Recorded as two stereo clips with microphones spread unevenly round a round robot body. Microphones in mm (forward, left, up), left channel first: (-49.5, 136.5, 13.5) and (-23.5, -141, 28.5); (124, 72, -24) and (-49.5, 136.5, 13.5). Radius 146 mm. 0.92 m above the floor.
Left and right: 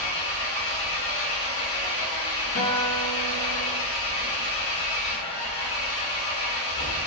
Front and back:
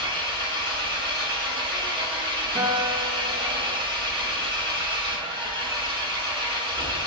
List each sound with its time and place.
0.0 s an engine running: 95° left, 1.6 m
2.5 s a guitar: 110° left, 1.5 m